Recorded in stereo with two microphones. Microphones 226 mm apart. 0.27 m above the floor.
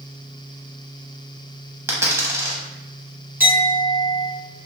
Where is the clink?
10° right (ahead or behind), 1.4 m.